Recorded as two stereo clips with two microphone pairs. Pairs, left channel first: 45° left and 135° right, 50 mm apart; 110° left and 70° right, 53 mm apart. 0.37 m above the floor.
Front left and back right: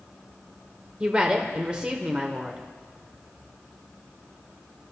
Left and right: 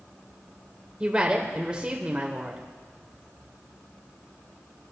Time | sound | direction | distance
1.0 | a woman speaking | 105° right | 1.0 m